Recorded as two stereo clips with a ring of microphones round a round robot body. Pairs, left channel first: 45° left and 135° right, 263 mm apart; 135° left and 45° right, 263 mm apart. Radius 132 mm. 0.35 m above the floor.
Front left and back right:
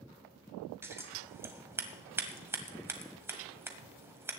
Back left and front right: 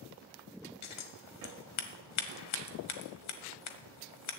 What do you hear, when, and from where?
0.8 s scissors: 145° left, 1.4 m